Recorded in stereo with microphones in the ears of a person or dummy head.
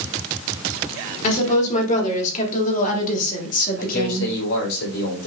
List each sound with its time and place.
1.2 s a woman speaking: 40° left (ahead or behind), 4 m; by 4.3 s 55° left (ahead or behind), 2 m
3.8 s a man speaking: 85° left, 5.5 m